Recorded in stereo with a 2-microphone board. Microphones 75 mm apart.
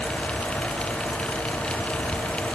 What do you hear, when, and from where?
Only background noise.